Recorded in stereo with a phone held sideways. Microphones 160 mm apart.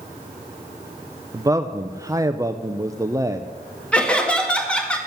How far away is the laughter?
About 2 m.